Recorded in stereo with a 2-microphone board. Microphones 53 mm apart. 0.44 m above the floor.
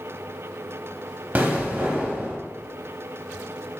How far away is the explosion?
About 0.7 m.